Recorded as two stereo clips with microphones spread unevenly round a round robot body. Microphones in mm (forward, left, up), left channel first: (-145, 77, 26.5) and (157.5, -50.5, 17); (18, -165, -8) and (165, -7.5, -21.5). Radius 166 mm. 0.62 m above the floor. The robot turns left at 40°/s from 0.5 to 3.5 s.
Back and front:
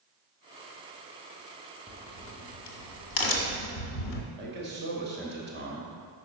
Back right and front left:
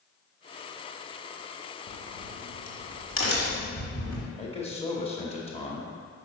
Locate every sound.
1.9 s a crack: 125° right, 0.9 m; by 4.3 s 170° left, 0.9 m
4.4 s a man speaking: 75° right, 1.2 m